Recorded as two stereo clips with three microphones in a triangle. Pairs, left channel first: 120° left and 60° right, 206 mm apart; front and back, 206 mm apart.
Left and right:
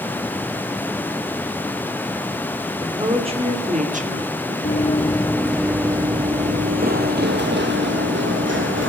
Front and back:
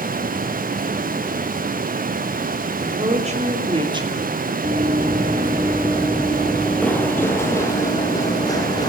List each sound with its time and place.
2.8 s a woman speaking: 130° right, 3 m; by 4.5 s 100° right, 2.5 m
4.6 s running footsteps: 140° left, 1.3 m; by 8.9 s 70° right, 3 m